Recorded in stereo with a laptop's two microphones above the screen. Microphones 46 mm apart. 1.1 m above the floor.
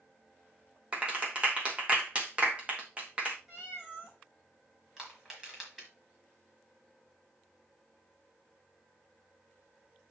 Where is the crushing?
10° right (ahead or behind), 3.5 m.